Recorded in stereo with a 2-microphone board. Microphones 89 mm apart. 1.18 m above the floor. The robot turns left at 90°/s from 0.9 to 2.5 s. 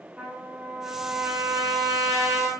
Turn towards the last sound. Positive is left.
turn(degrees=-155)